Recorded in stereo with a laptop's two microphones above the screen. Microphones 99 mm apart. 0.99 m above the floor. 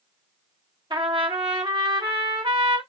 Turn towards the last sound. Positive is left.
turn(degrees=-55)  # may be behind; listen again after turning